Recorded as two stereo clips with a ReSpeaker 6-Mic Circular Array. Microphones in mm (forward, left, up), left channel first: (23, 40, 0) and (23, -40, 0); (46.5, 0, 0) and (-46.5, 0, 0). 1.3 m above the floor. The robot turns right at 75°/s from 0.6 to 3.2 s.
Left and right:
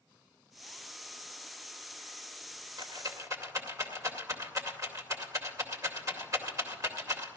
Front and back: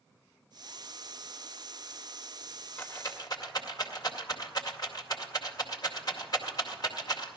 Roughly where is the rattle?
Right.